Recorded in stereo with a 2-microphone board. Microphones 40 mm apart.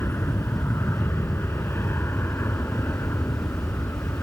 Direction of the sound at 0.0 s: 75° left (ahead or behind).